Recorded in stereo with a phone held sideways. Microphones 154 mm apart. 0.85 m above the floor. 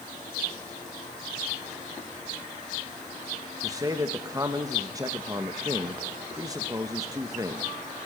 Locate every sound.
3.6 s a man speaking: 25° right (ahead or behind), 1.0 m